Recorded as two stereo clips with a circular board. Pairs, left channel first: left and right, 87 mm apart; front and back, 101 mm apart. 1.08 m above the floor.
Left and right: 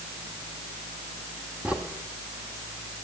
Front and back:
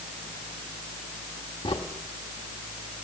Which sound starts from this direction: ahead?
A crack, at 1.6 s.